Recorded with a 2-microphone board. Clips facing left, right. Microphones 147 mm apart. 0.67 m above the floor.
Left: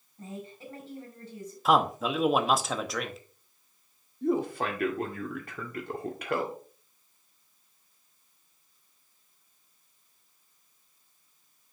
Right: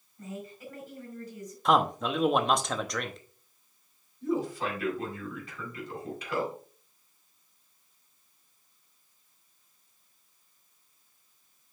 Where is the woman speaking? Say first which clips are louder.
Right 1 dB; 30° left (ahead or behind), 4 m.